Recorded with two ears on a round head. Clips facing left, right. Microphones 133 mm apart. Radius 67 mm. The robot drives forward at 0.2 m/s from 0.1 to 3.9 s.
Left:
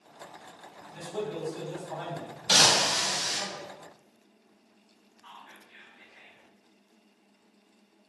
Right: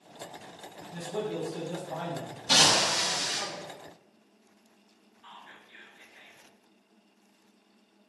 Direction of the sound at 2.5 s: 40° left (ahead or behind).